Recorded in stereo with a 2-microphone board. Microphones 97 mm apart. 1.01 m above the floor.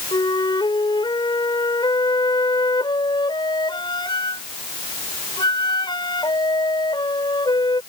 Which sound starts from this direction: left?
A flute, at 0.1 s.